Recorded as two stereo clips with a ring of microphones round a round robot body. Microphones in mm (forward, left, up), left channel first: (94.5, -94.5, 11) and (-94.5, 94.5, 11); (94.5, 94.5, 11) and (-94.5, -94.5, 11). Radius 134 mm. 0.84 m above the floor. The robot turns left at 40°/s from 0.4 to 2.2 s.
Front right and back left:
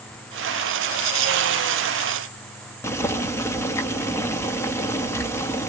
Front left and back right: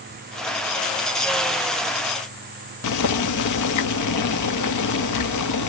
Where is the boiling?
35° left, 1.0 m.